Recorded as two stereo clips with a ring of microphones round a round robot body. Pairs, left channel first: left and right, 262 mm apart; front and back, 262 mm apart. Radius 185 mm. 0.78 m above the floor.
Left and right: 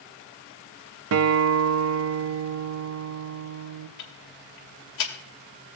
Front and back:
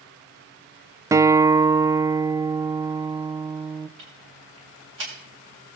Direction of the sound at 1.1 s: 100° right.